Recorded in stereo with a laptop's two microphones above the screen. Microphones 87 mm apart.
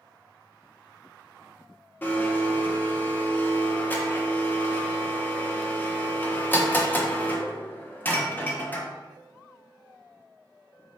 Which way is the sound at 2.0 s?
20° left (ahead or behind).